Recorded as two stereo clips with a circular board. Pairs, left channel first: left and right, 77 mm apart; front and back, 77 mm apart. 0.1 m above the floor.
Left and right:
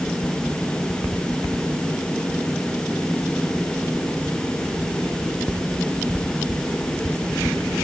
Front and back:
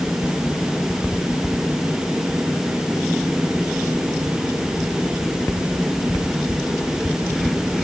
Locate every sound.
Only background noise.